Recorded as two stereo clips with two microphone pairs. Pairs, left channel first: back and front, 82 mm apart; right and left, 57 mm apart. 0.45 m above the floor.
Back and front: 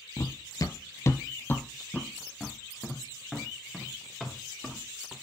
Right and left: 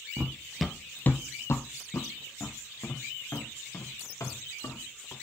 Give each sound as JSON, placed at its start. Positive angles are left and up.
{"t": 0.2, "sound": "running footsteps", "azimuth_deg": 150, "distance_m": 0.7}